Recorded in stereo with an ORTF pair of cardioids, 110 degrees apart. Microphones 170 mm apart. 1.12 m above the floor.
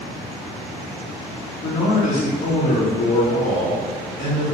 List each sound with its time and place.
1.6 s a man speaking: 45° left, 1.5 m